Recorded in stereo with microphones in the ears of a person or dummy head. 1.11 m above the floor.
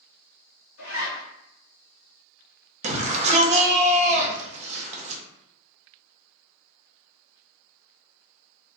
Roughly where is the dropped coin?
I don't hear a dropped coin.